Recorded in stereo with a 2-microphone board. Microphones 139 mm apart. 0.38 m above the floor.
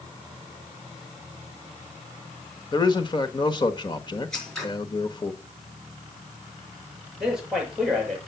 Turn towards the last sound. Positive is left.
turn(degrees=-5)  # may be behind; listen again after turning